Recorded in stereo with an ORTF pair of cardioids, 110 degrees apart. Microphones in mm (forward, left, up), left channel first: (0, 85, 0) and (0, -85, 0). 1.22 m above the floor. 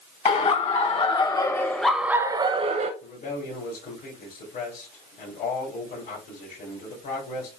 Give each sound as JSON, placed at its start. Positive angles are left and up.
{"t": 0.2, "sound": "laughter", "azimuth_deg": 40, "distance_m": 1.6}
{"t": 3.0, "sound": "a man speaking", "azimuth_deg": 65, "distance_m": 3.0}